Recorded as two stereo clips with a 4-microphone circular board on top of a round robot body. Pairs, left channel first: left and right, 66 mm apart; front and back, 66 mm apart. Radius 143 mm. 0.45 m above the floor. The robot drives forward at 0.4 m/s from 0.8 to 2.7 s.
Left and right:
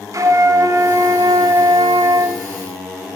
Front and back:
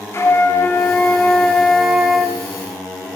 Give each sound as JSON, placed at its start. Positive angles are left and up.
{"t": 0.1, "sound": "a flute", "azimuth_deg": -50, "distance_m": 0.7}